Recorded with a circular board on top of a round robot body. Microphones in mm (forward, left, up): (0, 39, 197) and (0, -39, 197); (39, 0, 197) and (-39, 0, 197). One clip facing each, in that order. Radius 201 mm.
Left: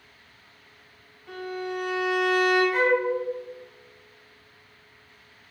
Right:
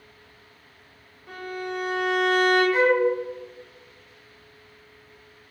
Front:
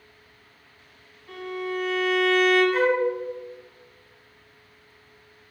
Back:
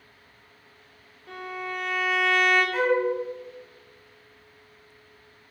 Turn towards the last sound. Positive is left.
turn(degrees=-30)